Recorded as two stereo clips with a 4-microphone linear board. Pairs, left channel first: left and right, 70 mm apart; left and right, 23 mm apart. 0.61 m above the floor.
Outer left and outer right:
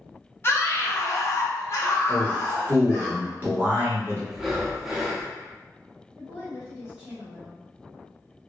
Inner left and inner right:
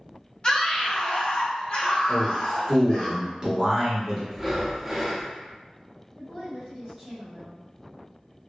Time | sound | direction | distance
0.4 | a scream | 35° left (ahead or behind) | 1.0 m
2.1 | a man speaking | 30° right (ahead or behind) | 1.3 m
4.3 | breathing | 5° right (ahead or behind) | 0.6 m
6.2 | a woman speaking | 10° right (ahead or behind) | 1.4 m